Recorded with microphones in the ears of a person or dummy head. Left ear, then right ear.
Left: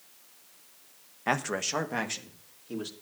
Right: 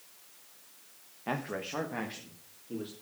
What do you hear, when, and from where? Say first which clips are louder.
1.3 s a man speaking: left 7 dB; 55° left (ahead or behind), 1.0 m; by 2.9 s 70° left (ahead or behind), 3 m